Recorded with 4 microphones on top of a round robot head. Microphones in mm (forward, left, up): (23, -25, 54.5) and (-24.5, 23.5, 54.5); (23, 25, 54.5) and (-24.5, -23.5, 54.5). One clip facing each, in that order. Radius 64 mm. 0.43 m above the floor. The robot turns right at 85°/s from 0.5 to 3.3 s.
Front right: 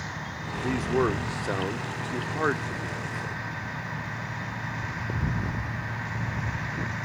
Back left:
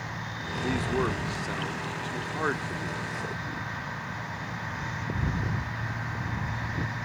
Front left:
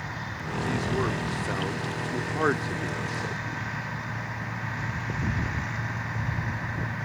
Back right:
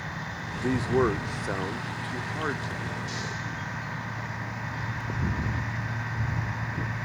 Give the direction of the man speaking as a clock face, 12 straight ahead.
5 o'clock.